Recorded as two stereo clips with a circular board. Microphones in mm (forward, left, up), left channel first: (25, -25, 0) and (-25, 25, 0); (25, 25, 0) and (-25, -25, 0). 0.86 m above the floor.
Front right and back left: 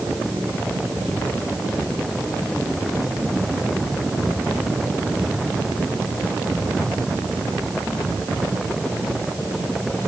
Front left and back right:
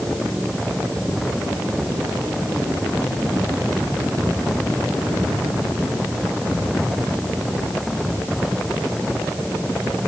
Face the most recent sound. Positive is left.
No sound to turn to.